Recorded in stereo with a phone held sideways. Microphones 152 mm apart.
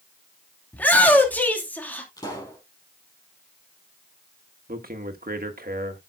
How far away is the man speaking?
About 1.4 m.